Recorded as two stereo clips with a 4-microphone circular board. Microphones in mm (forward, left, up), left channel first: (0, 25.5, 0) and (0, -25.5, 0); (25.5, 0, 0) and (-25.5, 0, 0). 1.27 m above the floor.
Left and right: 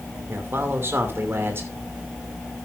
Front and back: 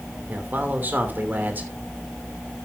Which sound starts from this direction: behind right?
A man speaking, at 0.3 s.